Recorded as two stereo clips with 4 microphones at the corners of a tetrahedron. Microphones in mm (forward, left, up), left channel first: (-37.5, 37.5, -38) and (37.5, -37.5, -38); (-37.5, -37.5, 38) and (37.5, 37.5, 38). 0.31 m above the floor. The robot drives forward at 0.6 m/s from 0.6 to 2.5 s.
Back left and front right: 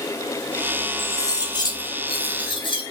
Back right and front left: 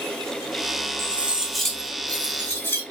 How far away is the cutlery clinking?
About 0.7 m.